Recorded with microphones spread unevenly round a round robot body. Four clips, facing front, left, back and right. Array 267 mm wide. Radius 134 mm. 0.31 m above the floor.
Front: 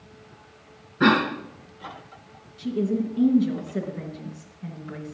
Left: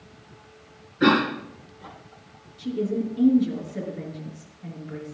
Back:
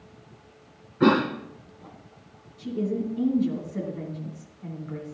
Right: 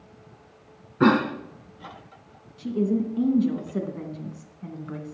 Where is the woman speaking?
70° right, 3 m.